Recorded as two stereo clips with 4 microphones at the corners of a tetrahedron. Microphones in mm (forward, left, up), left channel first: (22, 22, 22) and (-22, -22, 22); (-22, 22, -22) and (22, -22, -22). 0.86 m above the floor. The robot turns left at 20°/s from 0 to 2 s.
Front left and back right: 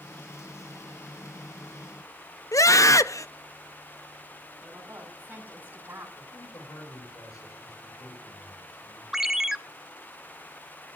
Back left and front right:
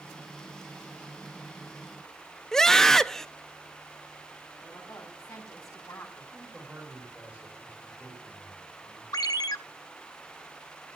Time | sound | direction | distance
2.5 | a scream | 50° left | 0.8 m
4.6 | a woman speaking | 165° left | 6 m
6.2 | a man speaking | 30° left | 8.5 m
9.1 | a ringtone | 145° left | 0.8 m